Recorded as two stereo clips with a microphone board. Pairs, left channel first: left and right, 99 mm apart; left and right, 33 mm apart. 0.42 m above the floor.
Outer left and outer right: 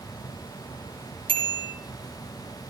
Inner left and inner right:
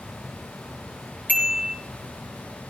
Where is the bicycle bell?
55° right (ahead or behind), 5 m.